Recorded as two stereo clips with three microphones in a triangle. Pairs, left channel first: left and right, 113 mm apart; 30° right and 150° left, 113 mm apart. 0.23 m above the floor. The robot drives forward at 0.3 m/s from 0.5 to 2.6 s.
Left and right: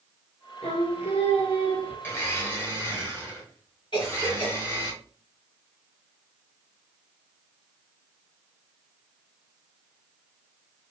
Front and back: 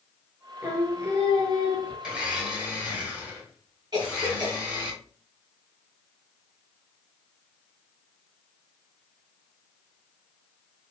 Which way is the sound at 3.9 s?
110° left.